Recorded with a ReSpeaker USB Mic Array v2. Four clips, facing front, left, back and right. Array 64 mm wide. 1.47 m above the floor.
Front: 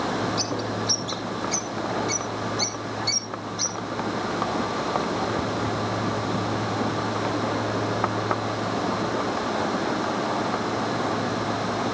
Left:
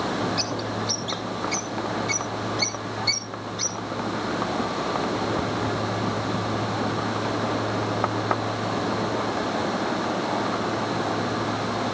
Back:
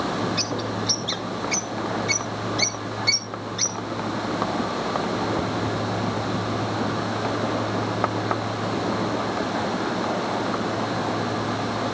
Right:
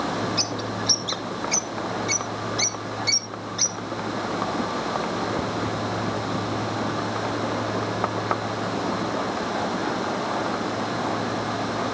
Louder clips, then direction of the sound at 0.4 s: Even, even; 155° right.